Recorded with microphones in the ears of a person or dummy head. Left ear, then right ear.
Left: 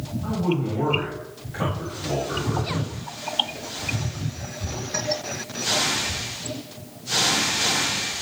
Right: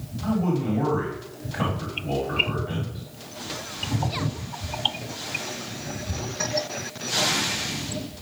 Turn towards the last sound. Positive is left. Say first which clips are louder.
# even
turn(degrees=-45)  # may be behind; listen again after turning